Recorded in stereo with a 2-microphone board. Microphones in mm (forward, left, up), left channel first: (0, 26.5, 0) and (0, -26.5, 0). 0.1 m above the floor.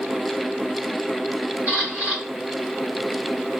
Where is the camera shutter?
30° right (ahead or behind), 2.5 m.